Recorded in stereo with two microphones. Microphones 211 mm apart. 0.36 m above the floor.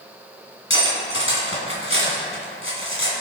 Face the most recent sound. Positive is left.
turn(degrees=75)  # may be behind; listen again after turning